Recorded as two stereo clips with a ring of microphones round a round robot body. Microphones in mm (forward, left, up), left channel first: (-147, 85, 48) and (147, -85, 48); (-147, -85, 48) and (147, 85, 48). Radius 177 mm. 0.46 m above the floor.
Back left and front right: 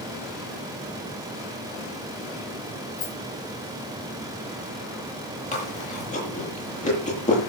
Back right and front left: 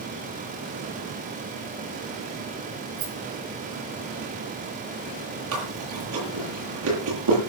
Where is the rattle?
85° left, 6.5 m.